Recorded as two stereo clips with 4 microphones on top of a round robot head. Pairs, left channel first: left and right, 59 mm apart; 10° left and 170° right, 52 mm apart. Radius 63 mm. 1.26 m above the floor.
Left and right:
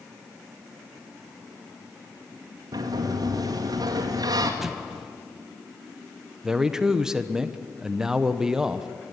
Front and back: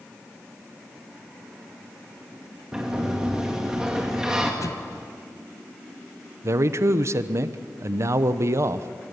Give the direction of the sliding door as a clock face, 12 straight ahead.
3 o'clock.